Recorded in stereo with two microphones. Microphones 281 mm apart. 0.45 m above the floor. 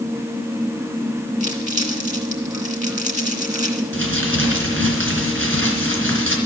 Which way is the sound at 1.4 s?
25° right (ahead or behind).